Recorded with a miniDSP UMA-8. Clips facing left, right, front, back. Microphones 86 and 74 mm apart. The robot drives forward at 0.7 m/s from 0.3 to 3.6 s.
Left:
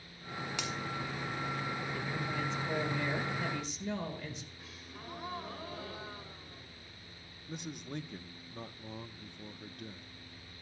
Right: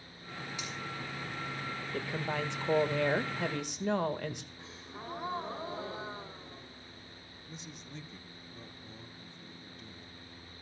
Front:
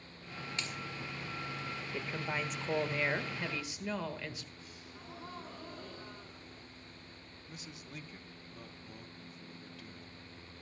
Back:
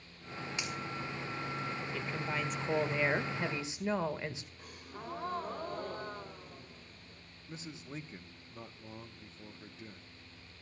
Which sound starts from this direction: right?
A woman speaking, at 1.9 s.